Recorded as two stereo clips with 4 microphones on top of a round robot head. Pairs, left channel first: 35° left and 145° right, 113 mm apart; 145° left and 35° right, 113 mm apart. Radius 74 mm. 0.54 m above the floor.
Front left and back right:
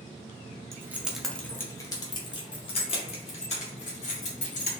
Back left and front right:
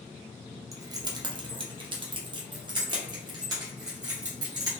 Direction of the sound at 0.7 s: 85° right.